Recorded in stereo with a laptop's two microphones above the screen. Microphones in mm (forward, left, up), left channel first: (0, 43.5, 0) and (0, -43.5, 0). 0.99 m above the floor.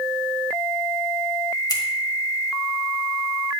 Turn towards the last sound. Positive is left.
turn(degrees=50)  # may be behind; listen again after turning